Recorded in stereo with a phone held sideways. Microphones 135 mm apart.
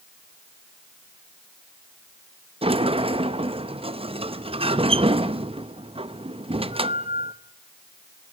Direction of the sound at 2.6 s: 45° right (ahead or behind).